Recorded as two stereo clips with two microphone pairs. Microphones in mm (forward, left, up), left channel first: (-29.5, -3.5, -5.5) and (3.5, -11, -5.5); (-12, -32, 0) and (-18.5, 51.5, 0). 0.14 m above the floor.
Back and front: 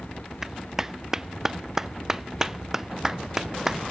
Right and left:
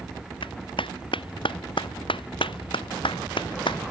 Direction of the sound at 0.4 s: 95° right.